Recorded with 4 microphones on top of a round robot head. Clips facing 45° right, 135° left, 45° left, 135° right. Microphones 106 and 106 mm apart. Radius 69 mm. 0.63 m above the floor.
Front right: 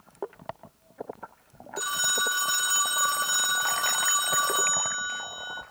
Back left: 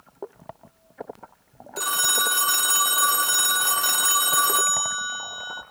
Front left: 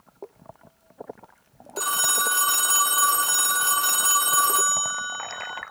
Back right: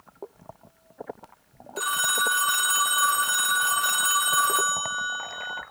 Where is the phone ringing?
100° left, 0.8 m.